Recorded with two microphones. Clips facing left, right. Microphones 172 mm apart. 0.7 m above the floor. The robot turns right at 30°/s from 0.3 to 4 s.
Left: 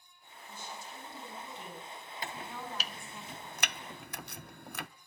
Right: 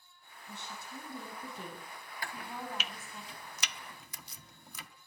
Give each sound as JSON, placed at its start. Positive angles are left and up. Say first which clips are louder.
{"t": 0.5, "sound": "a woman speaking", "louder": "even", "azimuth_deg": -80, "distance_m": 8.0}
{"t": 2.2, "sound": "chopping", "louder": "even", "side_deg": 20, "distance_m": 0.7}